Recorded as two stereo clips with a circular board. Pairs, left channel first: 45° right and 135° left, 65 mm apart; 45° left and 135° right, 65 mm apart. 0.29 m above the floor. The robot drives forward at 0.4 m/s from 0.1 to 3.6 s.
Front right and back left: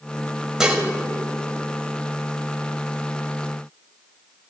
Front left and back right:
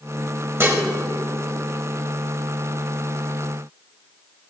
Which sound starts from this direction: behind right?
Dishes clattering, at 0.6 s.